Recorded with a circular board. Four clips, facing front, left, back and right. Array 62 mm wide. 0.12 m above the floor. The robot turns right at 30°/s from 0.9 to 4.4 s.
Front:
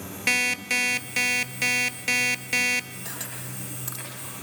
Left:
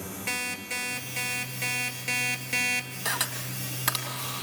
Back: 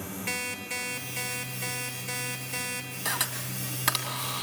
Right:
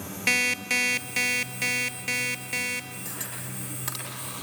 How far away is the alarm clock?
About 1.1 m.